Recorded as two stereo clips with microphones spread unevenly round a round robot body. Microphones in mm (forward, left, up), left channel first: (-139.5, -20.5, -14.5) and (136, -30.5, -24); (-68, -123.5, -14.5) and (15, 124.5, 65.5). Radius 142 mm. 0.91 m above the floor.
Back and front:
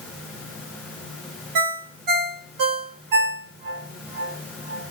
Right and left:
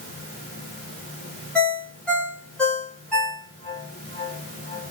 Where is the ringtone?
20° right, 0.9 m.